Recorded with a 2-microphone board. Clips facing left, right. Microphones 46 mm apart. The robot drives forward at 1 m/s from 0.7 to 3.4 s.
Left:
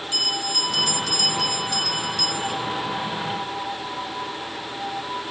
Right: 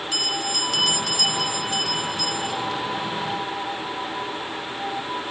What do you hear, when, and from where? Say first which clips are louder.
0.1 s a bell: even; 75° right (ahead or behind), 0.8 m; by 2.5 s 20° right (ahead or behind), 2 m